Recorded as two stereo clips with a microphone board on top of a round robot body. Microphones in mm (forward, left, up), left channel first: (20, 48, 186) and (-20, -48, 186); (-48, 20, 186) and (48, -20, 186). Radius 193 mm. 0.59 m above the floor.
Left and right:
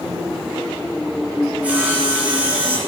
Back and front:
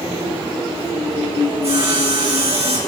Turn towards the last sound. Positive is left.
turn(degrees=-35)